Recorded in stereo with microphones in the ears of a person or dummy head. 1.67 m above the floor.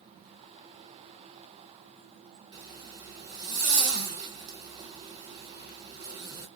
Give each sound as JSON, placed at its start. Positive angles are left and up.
{"t": 2.5, "sound": "a zipper", "side_deg": -20, "distance_m": 1.3}